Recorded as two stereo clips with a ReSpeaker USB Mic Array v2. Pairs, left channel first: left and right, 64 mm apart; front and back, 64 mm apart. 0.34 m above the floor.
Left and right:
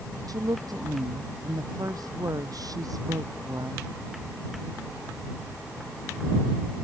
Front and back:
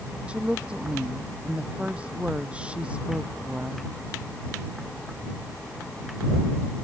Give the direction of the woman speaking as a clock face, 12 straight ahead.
4 o'clock.